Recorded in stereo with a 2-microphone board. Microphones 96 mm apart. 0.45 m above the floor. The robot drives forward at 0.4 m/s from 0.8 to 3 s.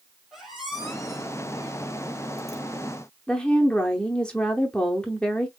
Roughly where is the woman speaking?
Centre.